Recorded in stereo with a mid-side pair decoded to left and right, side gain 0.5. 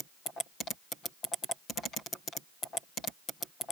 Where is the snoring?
I don't hear snoring.